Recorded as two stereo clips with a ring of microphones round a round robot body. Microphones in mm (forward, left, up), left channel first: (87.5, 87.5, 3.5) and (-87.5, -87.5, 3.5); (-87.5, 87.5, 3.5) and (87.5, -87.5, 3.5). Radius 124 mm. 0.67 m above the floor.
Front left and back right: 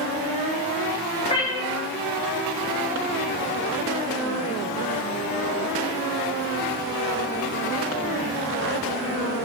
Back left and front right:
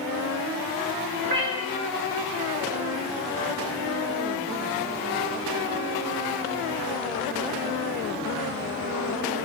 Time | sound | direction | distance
1.2 | a cat meowing | 25° right | 2 m